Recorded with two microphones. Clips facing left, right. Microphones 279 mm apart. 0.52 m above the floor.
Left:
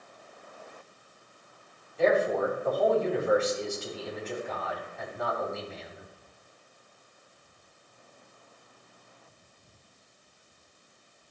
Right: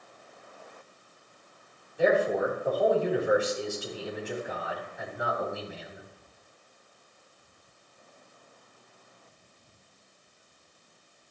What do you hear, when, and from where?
2.0 s a man speaking: 15° right (ahead or behind), 3 m